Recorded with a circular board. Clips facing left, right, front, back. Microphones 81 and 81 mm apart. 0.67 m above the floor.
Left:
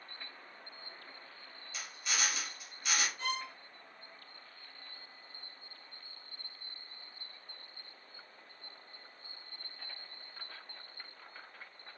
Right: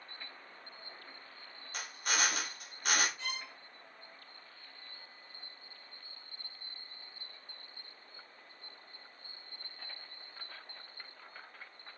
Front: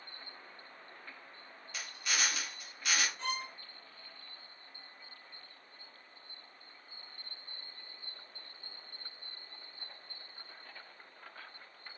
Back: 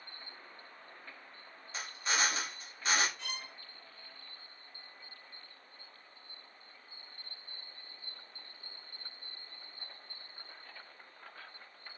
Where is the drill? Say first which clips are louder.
Right 4 dB, back 3 dB; 125° right, 1.4 m.